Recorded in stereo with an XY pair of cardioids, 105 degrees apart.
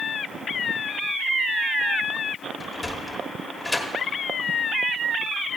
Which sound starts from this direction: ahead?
A sliding door, at 2.6 s.